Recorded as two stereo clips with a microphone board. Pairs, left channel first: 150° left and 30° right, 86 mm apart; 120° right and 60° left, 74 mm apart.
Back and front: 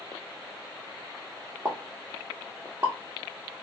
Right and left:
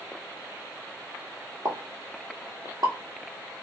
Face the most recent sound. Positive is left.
turn(degrees=30)